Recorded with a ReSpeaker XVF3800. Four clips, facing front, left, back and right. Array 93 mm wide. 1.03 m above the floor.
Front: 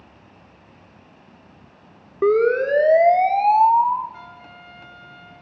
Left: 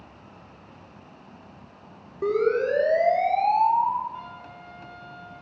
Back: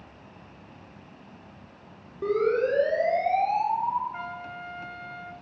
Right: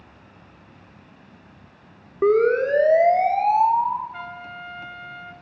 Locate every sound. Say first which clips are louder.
2.2 s a siren: right 5 dB, front 7 dB; 40° right, 3.5 m; by 4.0 s straight ahead, 2 m
4.1 s a trumpet: right 4 dB, back 5 dB; 120° right, 2.5 m